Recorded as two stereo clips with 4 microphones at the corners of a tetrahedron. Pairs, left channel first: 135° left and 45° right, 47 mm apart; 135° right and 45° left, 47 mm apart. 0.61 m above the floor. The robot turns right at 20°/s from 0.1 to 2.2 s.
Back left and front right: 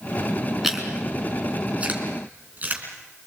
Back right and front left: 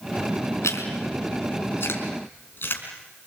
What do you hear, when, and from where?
0.6 s chewing: 130° right, 4 m; by 2.8 s 95° right, 4 m